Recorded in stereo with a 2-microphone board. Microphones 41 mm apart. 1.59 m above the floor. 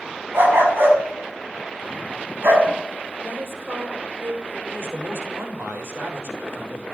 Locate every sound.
0.3 s a dog barking: 60° right (ahead or behind), 6 m
3.2 s a woman speaking: 65° right (ahead or behind), 7.5 m
4.7 s a man speaking: 80° right, 5 m